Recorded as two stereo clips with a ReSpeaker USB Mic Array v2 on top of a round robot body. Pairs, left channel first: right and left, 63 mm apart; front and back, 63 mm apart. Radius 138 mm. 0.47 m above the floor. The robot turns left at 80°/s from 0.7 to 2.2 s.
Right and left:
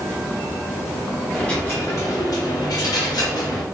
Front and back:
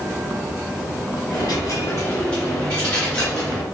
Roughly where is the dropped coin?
Ahead.